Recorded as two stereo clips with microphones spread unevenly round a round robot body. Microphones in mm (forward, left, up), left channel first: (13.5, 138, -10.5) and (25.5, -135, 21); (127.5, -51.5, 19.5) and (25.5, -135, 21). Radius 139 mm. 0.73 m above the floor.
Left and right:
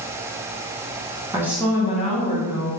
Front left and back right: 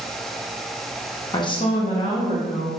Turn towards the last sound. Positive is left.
turn(degrees=55)